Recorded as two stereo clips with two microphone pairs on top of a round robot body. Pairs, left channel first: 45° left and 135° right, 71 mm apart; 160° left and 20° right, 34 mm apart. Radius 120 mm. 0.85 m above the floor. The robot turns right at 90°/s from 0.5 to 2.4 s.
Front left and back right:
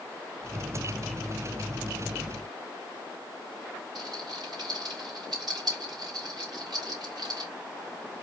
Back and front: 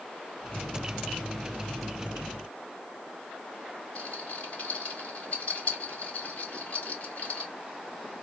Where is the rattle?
150° right, 2.5 m.